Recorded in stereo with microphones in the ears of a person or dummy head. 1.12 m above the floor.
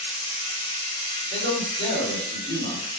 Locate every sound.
0.0 s a machine running: 20° left (ahead or behind), 0.7 m
1.3 s a man speaking: 65° right (ahead or behind), 1.9 m